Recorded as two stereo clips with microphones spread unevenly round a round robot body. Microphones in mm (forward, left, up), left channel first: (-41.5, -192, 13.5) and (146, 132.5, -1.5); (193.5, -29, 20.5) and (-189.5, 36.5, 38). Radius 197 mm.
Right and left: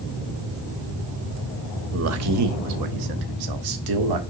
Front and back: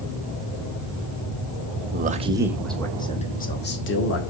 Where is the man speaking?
110° left, 0.9 m; by 4.2 s 45° left, 1.4 m.